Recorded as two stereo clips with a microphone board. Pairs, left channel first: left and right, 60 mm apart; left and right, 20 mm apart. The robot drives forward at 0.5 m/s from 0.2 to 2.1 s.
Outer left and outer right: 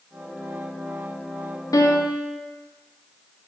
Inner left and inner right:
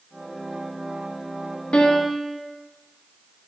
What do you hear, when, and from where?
1.7 s a piano: 80° left, 0.8 m; by 2.4 s 65° left (ahead or behind), 0.8 m